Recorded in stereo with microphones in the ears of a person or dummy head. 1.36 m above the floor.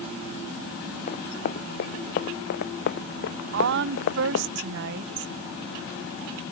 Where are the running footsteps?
40° left (ahead or behind); by 4.5 s 55° left (ahead or behind).